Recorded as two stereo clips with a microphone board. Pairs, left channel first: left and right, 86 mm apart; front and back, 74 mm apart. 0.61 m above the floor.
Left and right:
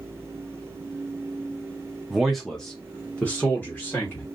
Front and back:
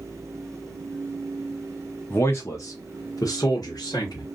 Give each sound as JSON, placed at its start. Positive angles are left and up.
{"t": 2.1, "sound": "a man speaking", "azimuth_deg": -10, "distance_m": 0.7}